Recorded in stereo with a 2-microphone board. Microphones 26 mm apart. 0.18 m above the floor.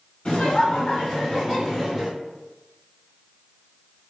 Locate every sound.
0.2 s laughter: 35° left (ahead or behind), 1.5 m; by 2.1 s 10° right (ahead or behind), 1.7 m